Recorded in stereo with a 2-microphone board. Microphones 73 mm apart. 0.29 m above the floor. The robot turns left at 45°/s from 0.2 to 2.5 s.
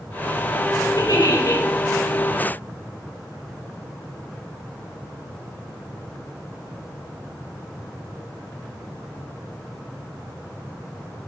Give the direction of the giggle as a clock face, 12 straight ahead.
10 o'clock.